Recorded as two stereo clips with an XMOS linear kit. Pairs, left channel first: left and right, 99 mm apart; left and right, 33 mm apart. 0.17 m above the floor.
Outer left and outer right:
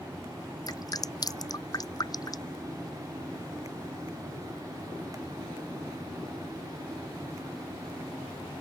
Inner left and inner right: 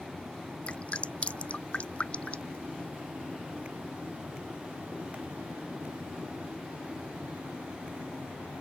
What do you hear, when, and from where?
0.7 s dripping: 40° left (ahead or behind)